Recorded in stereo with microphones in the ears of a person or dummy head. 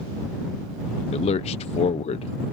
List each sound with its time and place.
1.1 s a man speaking: 30° left (ahead or behind)